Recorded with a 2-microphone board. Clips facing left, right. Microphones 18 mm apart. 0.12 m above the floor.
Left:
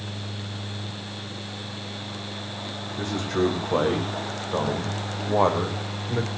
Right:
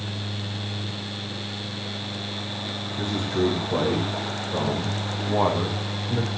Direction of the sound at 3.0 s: 65° left (ahead or behind).